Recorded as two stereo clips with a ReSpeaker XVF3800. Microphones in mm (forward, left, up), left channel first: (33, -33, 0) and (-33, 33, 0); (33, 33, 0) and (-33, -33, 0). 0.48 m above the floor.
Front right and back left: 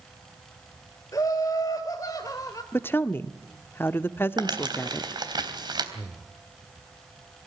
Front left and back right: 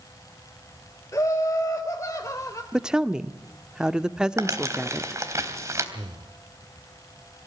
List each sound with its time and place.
1.1 s laughter: 5° right, 2 m
2.7 s a woman speaking: 65° right, 0.7 m
4.4 s crumpling: 170° left, 3 m
5.9 s breathing: 140° right, 1.7 m